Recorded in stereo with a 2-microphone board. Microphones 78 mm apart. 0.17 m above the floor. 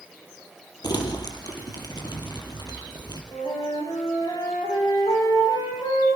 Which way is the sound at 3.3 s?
80° left.